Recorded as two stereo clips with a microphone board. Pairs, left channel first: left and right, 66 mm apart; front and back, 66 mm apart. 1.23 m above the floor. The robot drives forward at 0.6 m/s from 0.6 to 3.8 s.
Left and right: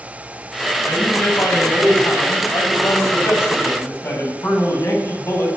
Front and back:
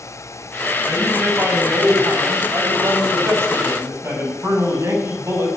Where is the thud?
I don't hear a thud.